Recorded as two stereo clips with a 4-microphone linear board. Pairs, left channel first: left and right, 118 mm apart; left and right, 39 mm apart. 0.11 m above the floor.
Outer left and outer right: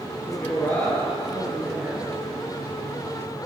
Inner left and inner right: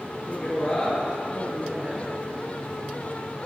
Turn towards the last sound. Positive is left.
turn(degrees=-25)  # may be behind; listen again after turning